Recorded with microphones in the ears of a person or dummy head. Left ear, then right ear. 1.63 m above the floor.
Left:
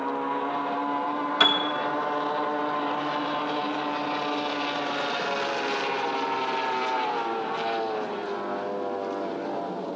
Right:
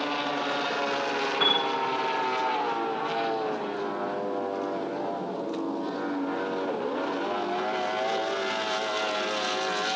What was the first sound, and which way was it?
A piano, 75° left (ahead or behind).